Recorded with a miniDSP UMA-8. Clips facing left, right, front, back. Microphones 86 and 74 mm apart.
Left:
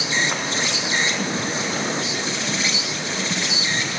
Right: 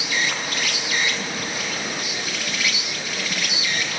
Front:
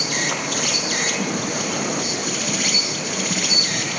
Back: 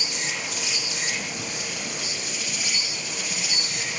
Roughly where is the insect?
Ahead left.